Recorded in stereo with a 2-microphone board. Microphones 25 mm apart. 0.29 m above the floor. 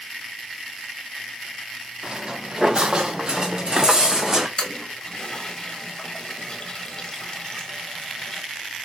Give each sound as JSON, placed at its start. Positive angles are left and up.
{"t": 2.0, "sound": "footsteps", "side_deg": -35, "distance_m": 2.5}
{"t": 4.6, "sound": "a toilet flushing", "side_deg": 30, "distance_m": 1.5}